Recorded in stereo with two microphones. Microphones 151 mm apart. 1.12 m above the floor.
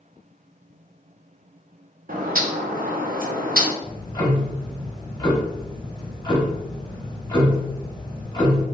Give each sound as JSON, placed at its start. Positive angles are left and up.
{"t": 2.1, "sound": "a bird", "side_deg": -65, "distance_m": 0.5}
{"t": 3.8, "sound": "ticking", "side_deg": 25, "distance_m": 0.7}